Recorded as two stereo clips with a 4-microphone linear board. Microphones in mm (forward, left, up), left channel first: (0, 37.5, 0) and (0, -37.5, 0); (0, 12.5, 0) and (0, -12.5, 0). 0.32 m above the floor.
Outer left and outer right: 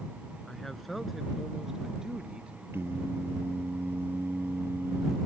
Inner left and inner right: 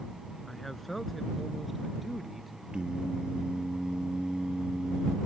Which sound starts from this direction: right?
Singing, at 2.7 s.